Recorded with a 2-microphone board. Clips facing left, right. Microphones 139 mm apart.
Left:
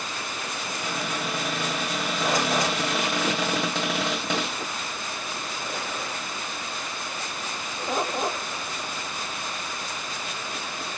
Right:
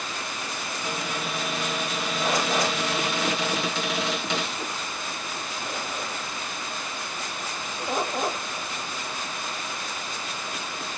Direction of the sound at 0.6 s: 50° left (ahead or behind).